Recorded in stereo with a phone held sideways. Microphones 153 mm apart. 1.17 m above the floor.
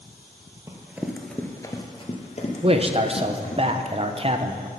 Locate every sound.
0.7 s running footsteps: 20° right (ahead or behind), 1.5 m; by 3.6 s 55° left (ahead or behind), 3 m
2.6 s a man speaking: 40° right (ahead or behind), 0.7 m